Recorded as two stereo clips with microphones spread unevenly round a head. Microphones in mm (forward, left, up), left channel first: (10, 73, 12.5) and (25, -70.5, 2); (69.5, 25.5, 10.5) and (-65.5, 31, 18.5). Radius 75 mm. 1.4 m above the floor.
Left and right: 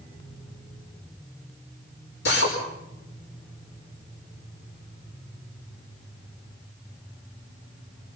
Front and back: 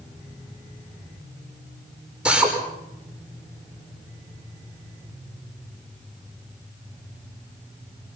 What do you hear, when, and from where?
2.2 s a drill: 95° left, 5 m